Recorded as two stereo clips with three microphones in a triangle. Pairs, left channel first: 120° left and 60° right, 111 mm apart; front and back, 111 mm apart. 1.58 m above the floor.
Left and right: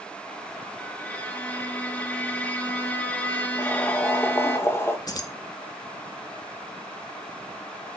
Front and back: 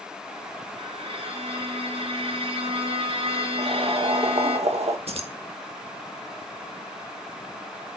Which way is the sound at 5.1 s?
170° left.